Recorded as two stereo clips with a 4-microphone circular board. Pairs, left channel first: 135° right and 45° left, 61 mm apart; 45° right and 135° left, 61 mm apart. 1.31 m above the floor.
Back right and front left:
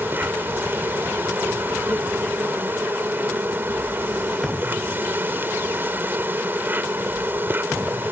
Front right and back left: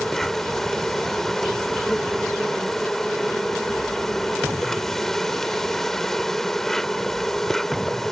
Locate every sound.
0.0 s an insect: 35° left